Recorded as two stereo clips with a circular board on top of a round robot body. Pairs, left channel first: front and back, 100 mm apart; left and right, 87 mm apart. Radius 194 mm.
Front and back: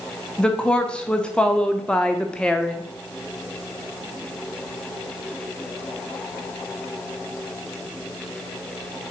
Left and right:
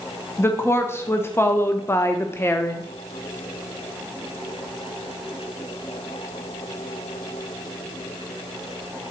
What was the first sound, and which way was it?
A woman speaking, 70° left.